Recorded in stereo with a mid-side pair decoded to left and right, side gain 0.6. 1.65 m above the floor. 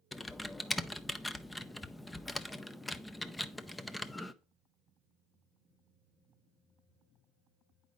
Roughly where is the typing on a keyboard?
Ahead.